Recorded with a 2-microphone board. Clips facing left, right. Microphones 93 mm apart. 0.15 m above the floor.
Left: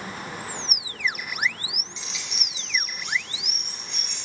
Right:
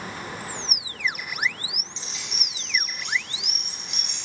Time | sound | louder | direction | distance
2.0 | keys jangling | even | 35° right (ahead or behind) | 1.4 m